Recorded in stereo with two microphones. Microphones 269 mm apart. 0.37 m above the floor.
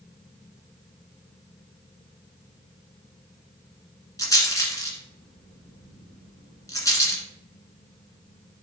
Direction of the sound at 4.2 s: 10° left (ahead or behind).